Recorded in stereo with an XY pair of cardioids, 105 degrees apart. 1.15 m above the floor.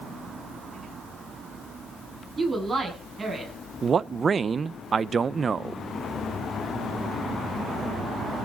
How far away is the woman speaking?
About 9.5 m.